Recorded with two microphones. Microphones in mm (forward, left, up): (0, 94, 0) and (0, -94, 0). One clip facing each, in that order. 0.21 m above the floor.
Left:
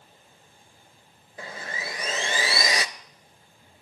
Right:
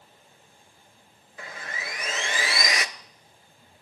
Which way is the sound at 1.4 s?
30° left (ahead or behind).